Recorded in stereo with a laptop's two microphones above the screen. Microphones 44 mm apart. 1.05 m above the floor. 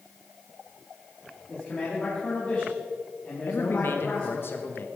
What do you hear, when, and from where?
1.5 s a man speaking: 30° left (ahead or behind), 2.5 m
3.5 s a man speaking: 50° left (ahead or behind), 1.0 m